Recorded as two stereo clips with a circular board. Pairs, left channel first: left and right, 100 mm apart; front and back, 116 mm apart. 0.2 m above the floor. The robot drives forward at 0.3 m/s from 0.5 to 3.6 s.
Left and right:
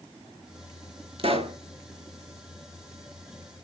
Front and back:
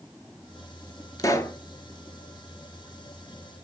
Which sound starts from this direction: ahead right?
A pop, at 1.2 s.